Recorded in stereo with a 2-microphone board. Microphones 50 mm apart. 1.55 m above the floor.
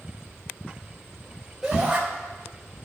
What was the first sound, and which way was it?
A shout, 10° right (ahead or behind).